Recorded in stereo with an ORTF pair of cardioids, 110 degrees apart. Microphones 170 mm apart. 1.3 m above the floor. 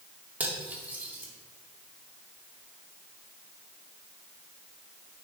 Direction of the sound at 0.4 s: 10° right.